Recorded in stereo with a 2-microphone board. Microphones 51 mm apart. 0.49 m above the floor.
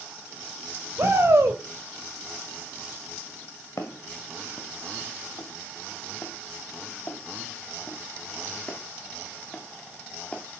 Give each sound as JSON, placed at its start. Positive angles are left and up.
{"t": 1.0, "sound": "a shout", "side_deg": -60, "distance_m": 2.5}
{"t": 3.8, "sound": "footsteps", "side_deg": 65, "distance_m": 1.8}